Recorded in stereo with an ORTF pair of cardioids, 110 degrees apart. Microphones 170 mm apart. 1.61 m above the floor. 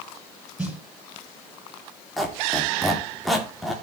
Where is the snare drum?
5° right, 6 m.